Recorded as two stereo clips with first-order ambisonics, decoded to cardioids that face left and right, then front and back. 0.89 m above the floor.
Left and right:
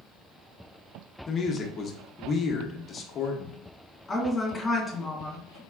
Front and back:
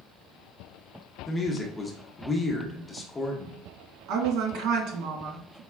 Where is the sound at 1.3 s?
65° left, 0.8 m.